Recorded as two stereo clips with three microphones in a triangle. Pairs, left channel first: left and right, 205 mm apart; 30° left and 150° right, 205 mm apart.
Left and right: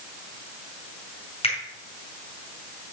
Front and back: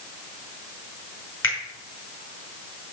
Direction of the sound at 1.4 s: 30° left.